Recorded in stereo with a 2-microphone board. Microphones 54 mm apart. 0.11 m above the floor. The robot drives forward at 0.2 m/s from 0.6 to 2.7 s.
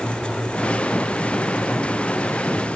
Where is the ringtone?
No ringtone in this recording.